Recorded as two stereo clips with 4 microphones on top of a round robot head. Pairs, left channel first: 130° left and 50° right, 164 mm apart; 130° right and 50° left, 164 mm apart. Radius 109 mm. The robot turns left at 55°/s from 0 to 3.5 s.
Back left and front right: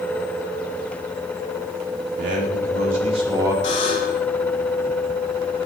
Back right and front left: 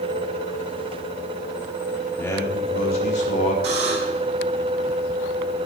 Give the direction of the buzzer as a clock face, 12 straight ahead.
9 o'clock.